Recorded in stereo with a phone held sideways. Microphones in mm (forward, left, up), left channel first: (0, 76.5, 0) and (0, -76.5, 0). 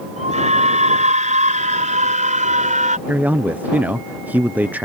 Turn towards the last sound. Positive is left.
turn(degrees=-10)  # may be behind; listen again after turning